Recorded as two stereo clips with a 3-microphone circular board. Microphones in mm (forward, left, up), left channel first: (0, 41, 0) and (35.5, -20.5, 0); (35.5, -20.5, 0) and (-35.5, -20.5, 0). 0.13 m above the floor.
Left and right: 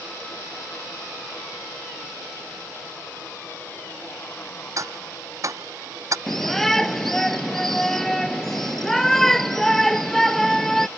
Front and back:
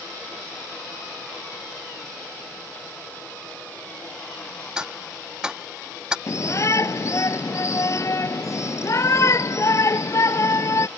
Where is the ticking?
100° right.